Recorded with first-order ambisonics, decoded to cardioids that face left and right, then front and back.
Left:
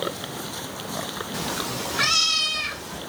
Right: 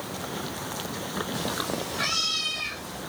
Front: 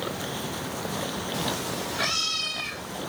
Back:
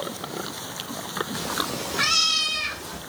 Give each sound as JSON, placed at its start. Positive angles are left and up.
{"t": 1.3, "sound": "a cat meowing", "azimuth_deg": 85, "distance_m": 0.8}